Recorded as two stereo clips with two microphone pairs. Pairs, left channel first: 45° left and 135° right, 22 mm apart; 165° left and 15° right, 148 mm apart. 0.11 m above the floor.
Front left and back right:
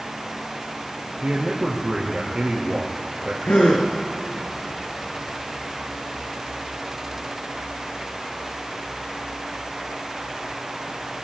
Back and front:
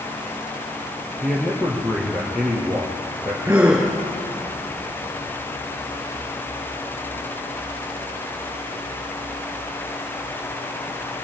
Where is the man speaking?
105° right, 3.5 m.